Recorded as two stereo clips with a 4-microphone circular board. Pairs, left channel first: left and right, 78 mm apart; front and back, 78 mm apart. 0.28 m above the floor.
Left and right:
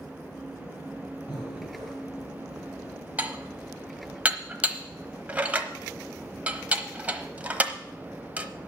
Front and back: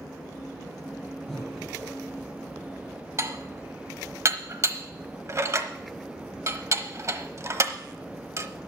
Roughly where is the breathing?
Left.